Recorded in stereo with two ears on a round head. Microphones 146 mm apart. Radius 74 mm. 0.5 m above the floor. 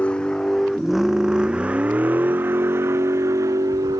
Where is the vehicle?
5° left (ahead or behind); by 4.0 s 20° right (ahead or behind).